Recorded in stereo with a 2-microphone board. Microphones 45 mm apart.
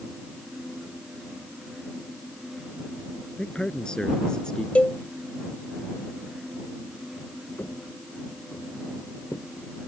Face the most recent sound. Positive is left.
turn(degrees=65)  # may be behind; listen again after turning